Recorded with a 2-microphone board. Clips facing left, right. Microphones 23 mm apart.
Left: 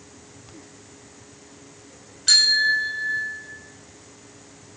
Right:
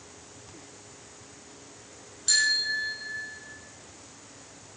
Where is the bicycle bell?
60° left (ahead or behind), 3.5 m; by 3.5 s 75° left (ahead or behind), 4 m.